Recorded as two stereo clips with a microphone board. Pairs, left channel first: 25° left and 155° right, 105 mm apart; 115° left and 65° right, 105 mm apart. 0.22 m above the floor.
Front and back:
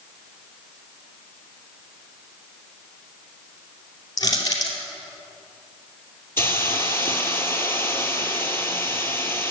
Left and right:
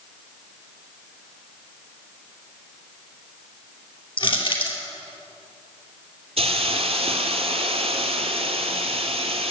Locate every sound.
4.2 s crushing: 75° left, 2.5 m
6.4 s a hiss: 45° right, 1.4 m